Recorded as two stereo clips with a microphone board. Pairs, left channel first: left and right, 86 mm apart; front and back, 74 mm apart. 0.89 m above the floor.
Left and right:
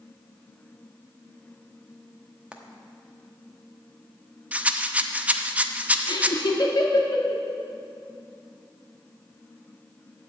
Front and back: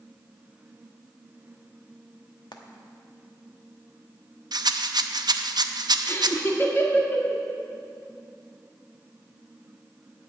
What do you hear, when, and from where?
2.5 s frying: 15° right, 1.1 m
4.5 s a rattle: 165° right, 0.6 m
6.1 s laughter: 55° left, 1.8 m